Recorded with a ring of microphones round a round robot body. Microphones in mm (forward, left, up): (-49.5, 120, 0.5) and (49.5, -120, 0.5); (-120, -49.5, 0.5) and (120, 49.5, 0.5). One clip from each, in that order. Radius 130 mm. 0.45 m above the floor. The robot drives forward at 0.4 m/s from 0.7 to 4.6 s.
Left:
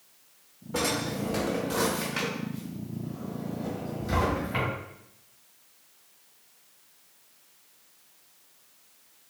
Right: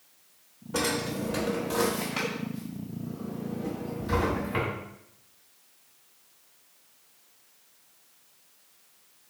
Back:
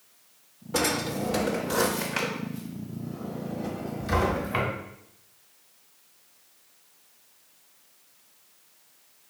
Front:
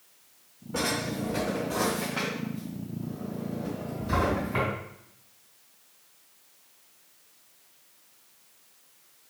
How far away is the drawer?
About 0.6 m.